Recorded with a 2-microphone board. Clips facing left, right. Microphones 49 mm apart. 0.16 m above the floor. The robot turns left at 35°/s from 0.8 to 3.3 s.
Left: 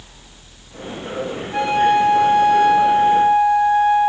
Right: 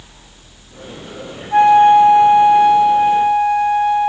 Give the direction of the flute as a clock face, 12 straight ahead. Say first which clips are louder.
Right 8 dB; 4 o'clock.